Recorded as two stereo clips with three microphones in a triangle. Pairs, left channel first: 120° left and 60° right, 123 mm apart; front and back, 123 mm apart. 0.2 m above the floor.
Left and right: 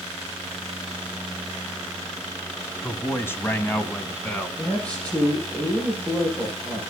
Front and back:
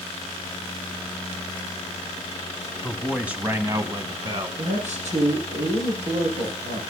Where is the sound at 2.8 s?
80° left, 1.5 m; by 4.5 s 165° right, 1.9 m.